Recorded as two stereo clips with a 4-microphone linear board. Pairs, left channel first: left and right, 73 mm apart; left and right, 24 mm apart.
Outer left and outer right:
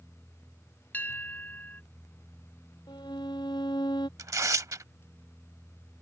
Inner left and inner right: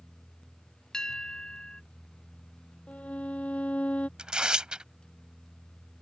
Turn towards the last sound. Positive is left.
turn(degrees=-45)  # may be behind; listen again after turning